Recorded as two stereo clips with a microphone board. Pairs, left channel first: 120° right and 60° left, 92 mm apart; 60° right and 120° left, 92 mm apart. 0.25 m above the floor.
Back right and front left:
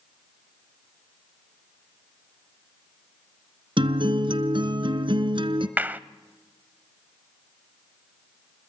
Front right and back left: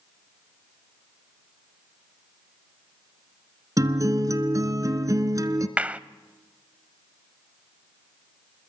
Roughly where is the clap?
Left.